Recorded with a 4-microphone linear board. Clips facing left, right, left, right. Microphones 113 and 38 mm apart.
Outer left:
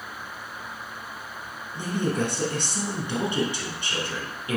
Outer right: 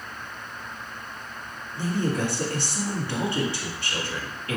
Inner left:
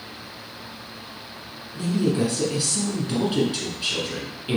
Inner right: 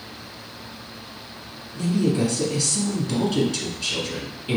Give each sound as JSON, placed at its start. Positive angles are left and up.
{"t": 1.8, "sound": "a woman speaking", "side_deg": 20, "distance_m": 1.3}